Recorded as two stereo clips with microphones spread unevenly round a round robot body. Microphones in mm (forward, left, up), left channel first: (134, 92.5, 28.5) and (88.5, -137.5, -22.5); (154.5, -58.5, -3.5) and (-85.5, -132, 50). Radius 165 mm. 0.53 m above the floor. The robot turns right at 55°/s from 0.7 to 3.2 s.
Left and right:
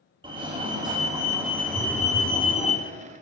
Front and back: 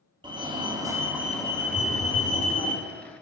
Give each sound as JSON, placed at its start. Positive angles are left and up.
{"t": 0.2, "sound": "a fire alarm", "azimuth_deg": -85, "distance_m": 2.5}
{"t": 1.7, "sound": "a phone buzzing", "azimuth_deg": -20, "distance_m": 3.0}